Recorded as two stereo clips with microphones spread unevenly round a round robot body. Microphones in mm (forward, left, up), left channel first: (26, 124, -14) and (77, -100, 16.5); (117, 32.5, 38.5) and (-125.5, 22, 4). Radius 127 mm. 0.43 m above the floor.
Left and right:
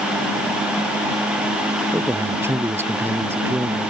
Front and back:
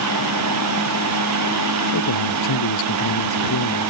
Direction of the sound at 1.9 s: Straight ahead.